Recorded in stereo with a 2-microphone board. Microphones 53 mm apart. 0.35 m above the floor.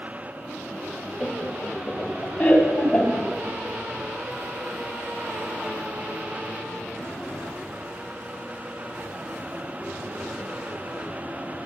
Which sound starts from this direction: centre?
Laughter, at 1.2 s.